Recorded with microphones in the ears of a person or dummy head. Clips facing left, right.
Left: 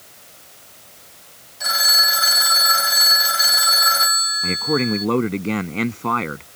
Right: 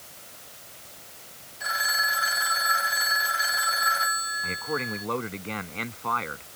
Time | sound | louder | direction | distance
1.6 | a phone ringing | left 5 dB | 75° left (ahead or behind) | ?
4.4 | a man speaking | left 12 dB | 45° left (ahead or behind) | ?